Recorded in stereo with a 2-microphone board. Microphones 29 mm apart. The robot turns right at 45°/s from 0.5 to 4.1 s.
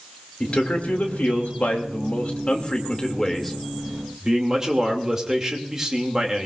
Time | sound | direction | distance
0.4 | a man speaking | 45° left | 2.5 m